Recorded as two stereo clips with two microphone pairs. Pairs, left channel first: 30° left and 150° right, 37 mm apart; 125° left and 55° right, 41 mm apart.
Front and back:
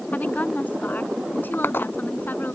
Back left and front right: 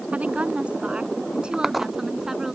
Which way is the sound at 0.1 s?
5° right.